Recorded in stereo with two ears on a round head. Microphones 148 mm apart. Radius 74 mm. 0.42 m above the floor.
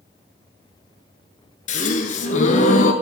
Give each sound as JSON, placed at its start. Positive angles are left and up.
{"t": 1.7, "sound": "a gasp", "side_deg": 45, "distance_m": 0.9}